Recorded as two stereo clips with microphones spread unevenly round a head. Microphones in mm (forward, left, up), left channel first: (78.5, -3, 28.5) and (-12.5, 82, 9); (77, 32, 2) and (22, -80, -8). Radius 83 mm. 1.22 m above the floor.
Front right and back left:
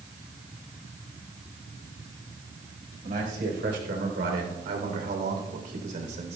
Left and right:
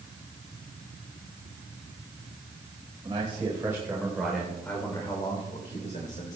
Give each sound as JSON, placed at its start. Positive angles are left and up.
{"t": 3.0, "sound": "a man speaking", "azimuth_deg": 180, "distance_m": 4.5}